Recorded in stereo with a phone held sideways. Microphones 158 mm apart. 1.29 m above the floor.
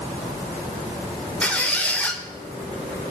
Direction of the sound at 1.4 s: 10° left (ahead or behind).